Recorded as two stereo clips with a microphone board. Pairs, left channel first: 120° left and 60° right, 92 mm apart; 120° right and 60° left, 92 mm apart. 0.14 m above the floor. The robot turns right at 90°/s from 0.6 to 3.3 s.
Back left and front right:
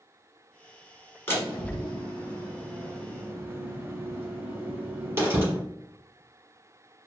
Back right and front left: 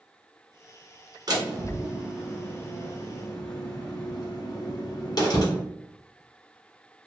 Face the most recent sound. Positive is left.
turn(degrees=-115)